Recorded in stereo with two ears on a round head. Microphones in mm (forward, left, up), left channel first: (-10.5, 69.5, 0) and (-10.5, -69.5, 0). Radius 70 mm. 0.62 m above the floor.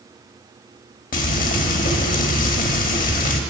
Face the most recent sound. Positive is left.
turn(degrees=55)  # may be behind; listen again after turning